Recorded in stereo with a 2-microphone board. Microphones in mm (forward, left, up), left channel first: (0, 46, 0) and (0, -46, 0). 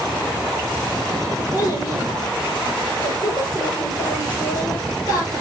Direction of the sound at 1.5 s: 40° left (ahead or behind).